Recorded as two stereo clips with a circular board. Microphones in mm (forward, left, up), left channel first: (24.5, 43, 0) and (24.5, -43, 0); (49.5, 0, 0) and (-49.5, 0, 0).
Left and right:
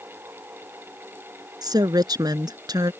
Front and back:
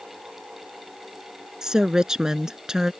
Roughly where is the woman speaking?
Right.